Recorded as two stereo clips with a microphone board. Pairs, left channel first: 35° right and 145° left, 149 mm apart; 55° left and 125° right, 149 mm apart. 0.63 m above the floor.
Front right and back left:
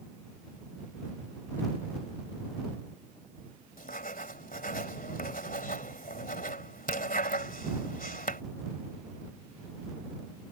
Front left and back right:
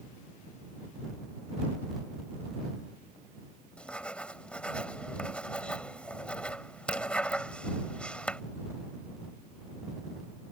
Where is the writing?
25° right.